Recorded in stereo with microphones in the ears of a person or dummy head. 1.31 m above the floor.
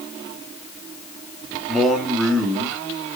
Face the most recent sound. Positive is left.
turn(degrees=0)  # may be behind; listen again after turning